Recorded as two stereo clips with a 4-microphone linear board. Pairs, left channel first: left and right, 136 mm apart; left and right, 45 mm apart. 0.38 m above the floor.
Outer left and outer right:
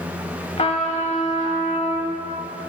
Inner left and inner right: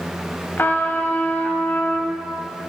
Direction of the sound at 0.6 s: 50° left (ahead or behind).